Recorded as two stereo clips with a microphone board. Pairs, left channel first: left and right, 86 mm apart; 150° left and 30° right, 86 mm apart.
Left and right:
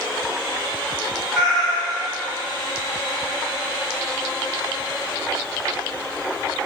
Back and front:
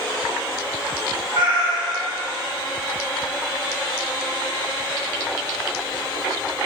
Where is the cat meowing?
Straight ahead, 1.8 m.